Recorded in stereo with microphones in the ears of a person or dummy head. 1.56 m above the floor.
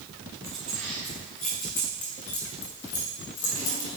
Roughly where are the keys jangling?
Centre.